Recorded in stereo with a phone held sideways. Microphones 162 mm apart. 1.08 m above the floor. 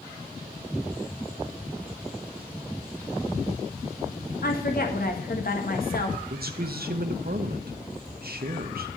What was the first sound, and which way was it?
A woman speaking, 70° left (ahead or behind).